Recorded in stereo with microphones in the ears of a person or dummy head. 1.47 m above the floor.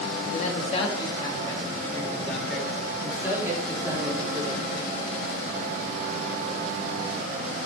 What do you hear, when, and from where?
0.3 s a man speaking: 45° left (ahead or behind), 3 m; by 4.6 s 25° right (ahead or behind), 4.5 m